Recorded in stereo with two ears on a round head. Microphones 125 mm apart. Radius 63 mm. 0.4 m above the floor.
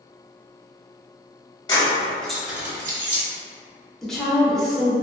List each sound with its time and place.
1.7 s keys jangling: 30° left (ahead or behind), 0.7 m; by 3.2 s 40° right (ahead or behind), 0.8 m
4.0 s a woman speaking: 5° left (ahead or behind), 0.8 m